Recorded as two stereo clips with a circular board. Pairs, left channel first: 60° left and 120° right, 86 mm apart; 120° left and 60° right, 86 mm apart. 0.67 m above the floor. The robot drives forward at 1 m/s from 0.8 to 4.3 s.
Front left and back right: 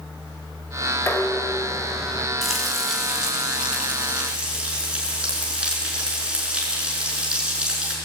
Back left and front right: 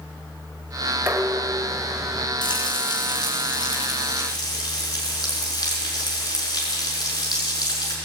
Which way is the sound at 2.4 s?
150° left.